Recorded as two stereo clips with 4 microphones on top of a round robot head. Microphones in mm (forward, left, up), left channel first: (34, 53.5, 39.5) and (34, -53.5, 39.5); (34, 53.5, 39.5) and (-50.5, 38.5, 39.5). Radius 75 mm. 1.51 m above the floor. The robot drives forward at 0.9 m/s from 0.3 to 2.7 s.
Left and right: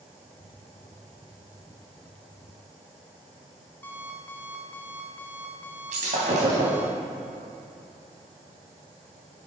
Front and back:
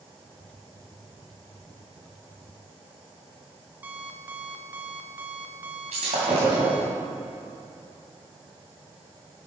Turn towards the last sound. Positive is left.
turn(degrees=-130)